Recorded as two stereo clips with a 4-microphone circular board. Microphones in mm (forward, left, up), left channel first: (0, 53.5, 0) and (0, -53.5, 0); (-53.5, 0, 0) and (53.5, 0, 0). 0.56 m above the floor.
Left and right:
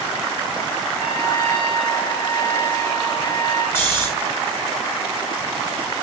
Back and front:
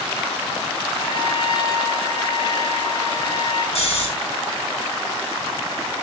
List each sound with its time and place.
1.0 s a trumpet: 130° left, 7.5 m
3.8 s snoring: 160° left, 4.5 m